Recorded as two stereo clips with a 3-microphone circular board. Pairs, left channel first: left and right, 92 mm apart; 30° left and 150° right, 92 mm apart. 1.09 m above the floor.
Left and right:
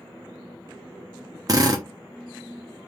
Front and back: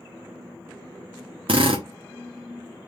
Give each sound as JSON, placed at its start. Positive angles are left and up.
{"t": 1.5, "sound": "a drill", "azimuth_deg": -140, "distance_m": 1.2}